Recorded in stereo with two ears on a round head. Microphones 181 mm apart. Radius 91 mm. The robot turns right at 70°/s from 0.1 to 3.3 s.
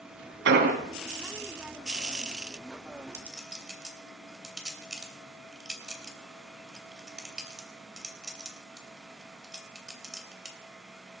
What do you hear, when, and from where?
0.5 s an explosion: 60° right (ahead or behind), 3 m; by 0.8 s 40° right (ahead or behind), 3 m
3.1 s a clink: 15° right (ahead or behind), 2.5 m; by 10.6 s 5° right (ahead or behind), 2.5 m